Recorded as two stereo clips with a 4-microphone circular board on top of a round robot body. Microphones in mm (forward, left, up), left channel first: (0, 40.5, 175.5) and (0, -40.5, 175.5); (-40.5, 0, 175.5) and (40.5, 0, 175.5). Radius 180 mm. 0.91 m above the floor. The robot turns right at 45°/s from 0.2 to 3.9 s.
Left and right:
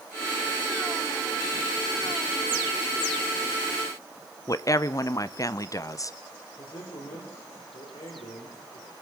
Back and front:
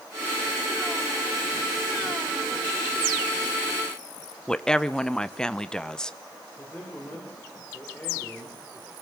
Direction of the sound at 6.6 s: 110° left.